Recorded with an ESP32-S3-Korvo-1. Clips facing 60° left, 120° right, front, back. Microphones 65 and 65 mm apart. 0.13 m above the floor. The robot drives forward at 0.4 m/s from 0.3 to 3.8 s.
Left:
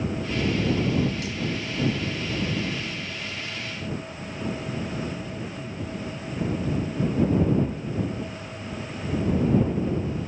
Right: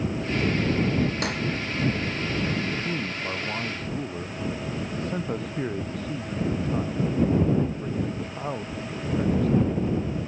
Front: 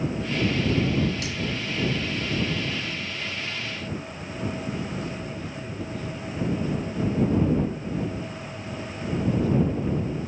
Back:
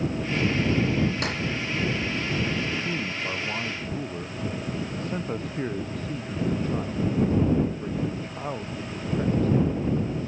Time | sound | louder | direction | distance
1.2 | cutlery clinking | right 3 dB, back 2 dB | 140° right | ?
2.6 | a man speaking | right 3 dB, back 2 dB | 140° right | ?